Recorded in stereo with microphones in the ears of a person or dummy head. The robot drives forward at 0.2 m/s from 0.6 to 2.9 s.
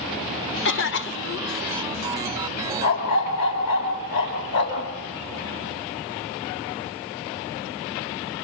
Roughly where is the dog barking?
Left.